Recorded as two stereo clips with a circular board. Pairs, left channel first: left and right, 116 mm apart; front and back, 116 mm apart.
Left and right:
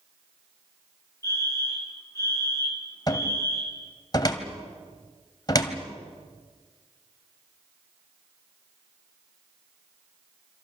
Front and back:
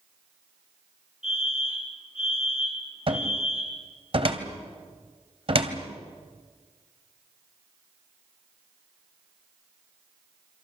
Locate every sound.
1.2 s a fire alarm: 30° left, 3 m
3.1 s a cupboard door: 145° left, 2 m